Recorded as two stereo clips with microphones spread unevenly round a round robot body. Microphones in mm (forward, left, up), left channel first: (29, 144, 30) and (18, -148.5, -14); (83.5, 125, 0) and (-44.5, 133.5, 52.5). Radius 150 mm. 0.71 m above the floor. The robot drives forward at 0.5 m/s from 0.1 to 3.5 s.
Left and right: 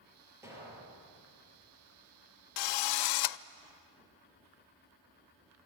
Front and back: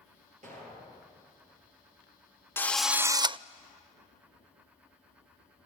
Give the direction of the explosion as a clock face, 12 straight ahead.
6 o'clock.